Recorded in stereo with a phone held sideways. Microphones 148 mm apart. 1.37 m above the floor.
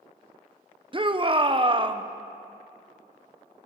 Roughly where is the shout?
Right.